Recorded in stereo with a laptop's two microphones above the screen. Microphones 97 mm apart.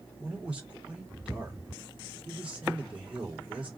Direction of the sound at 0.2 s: 10° right (ahead or behind).